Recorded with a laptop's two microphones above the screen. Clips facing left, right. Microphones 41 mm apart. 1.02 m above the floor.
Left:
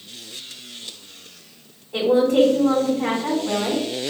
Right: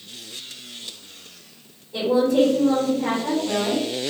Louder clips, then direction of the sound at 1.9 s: Left 2 dB; 80° left.